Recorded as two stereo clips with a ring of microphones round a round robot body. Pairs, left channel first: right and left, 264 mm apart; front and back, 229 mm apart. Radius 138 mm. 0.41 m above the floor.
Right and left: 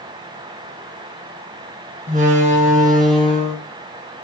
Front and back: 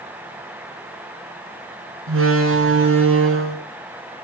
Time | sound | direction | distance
2.1 | a door slam | 155° left | 4.5 m